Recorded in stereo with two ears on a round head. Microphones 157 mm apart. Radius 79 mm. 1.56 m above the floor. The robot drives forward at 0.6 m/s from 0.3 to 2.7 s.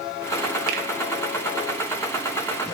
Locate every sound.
0.7 s a finger snap: 65° right (ahead or behind), 2 m; by 0.8 s 60° right (ahead or behind), 2 m